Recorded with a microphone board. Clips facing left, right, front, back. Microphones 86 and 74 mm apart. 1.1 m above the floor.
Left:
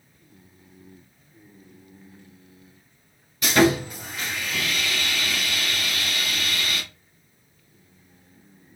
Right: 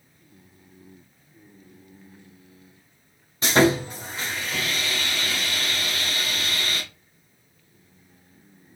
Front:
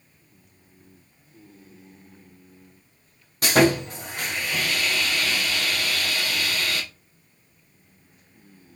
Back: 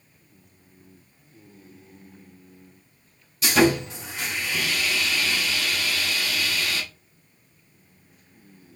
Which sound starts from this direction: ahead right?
Sawing, at 3.4 s.